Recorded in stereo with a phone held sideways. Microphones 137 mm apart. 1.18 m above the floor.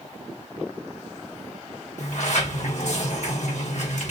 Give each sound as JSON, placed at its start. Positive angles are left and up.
{"t": 2.0, "sound": "a sliding door", "side_deg": 65, "distance_m": 1.6}